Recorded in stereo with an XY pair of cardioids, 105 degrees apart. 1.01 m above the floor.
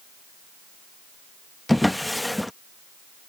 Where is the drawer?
5° left.